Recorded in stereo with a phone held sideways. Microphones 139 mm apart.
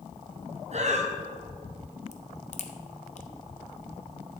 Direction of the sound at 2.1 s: 55° left (ahead or behind).